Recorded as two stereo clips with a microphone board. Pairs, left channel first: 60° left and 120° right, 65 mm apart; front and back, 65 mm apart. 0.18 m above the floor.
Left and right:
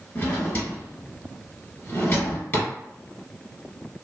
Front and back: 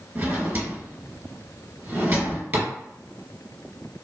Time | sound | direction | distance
0.1 | a drawer | 120° left | 1.7 m